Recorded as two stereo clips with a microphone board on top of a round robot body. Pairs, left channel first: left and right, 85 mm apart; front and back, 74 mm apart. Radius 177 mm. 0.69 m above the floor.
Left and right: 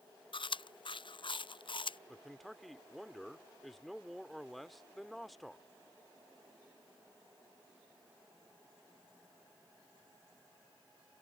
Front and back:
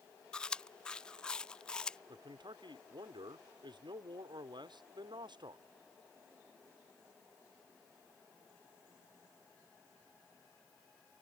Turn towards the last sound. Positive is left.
turn(degrees=180)